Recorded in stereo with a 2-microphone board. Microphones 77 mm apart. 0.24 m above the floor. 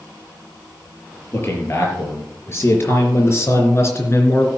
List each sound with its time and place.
1.3 s a man speaking: 30° left (ahead or behind), 4.5 m; by 4.5 s 40° left (ahead or behind), 2.5 m